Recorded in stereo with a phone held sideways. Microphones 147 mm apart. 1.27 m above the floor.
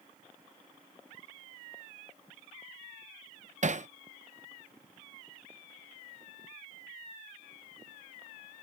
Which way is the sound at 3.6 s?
55° right (ahead or behind).